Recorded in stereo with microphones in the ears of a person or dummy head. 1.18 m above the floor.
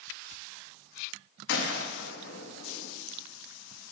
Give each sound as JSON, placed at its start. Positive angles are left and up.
{"t": 1.5, "sound": "a gunshot", "side_deg": 70, "distance_m": 0.9}